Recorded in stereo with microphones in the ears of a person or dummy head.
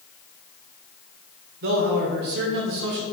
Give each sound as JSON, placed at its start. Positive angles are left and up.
{"t": 1.6, "sound": "a man speaking", "side_deg": -60, "distance_m": 0.8}